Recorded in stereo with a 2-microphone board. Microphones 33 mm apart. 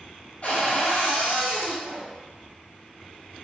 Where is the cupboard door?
40° left (ahead or behind), 1.8 m.